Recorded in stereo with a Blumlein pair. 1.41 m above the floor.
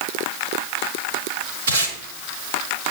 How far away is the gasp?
No gasp in this recording.